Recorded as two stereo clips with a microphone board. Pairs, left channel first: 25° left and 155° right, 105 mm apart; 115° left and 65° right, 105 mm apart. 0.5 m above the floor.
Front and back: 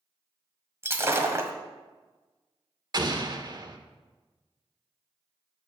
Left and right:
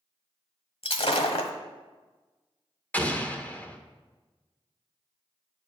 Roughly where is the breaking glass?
Behind left.